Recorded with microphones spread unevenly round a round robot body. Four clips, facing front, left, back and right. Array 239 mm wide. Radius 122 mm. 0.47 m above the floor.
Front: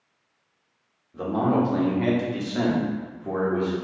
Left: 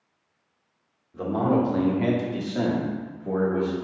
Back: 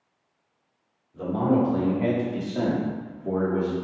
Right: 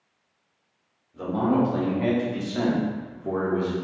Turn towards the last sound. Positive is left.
turn(degrees=-115)